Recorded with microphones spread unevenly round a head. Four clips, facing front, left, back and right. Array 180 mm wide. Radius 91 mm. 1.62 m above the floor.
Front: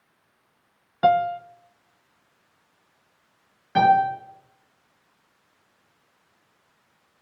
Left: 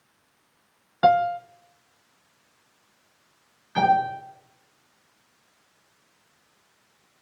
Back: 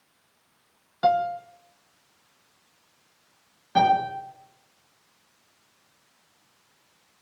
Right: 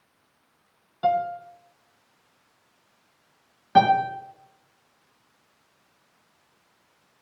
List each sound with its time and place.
1.0 s a piano: 70° left, 0.8 m
3.8 s a piano: 85° right, 6 m